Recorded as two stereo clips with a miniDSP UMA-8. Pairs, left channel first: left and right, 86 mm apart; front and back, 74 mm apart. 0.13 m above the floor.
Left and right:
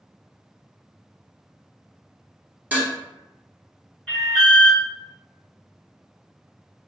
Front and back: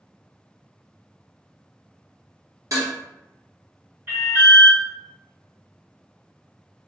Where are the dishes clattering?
160° right, 1.4 m.